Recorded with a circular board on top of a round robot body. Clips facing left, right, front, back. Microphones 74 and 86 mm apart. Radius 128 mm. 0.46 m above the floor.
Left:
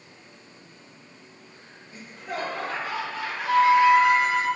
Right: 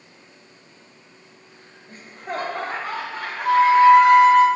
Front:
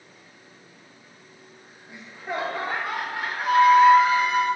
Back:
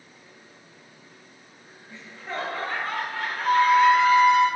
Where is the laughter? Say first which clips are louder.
Right 4 dB, front 3 dB; 70° right, 0.9 m.